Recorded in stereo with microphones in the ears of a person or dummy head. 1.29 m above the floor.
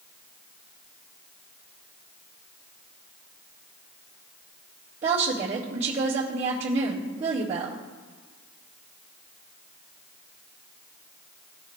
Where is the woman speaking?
35° right (ahead or behind), 2 m.